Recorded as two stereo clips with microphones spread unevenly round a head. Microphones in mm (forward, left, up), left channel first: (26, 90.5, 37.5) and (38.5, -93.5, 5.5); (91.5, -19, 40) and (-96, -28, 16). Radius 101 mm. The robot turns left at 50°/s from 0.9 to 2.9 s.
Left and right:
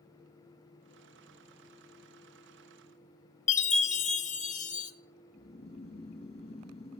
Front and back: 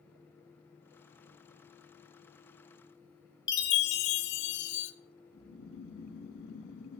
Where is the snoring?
35° left, 1.3 m.